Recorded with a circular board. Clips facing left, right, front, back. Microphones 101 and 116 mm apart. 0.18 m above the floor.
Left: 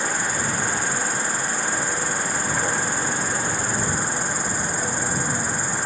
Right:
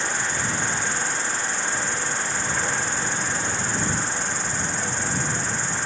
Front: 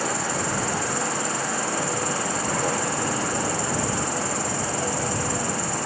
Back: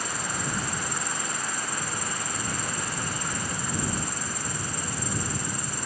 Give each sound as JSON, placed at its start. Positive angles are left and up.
{"t": 0.0, "sound": "an insect", "azimuth_deg": 10}